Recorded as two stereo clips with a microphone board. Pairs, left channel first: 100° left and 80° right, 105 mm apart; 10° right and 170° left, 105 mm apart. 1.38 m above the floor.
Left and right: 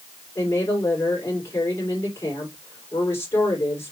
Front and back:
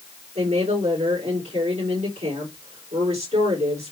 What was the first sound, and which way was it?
A woman speaking, 170° left.